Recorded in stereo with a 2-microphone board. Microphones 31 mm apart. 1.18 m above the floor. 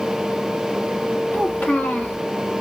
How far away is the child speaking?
About 2 m.